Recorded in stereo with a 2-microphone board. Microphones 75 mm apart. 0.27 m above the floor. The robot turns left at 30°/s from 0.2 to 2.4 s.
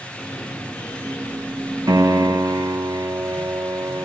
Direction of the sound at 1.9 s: 55° right (ahead or behind).